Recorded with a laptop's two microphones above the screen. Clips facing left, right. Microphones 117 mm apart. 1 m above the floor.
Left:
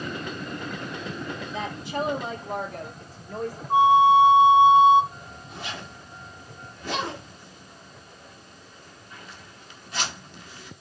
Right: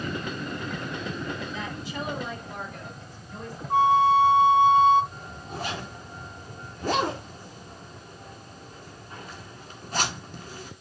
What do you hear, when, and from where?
1.5 s a woman speaking: 60° left (ahead or behind), 2.0 m; by 3.6 s 75° left (ahead or behind), 3 m
3.7 s a flute: 15° left (ahead or behind), 0.7 m
5.1 s a zipper: 40° right (ahead or behind), 1.7 m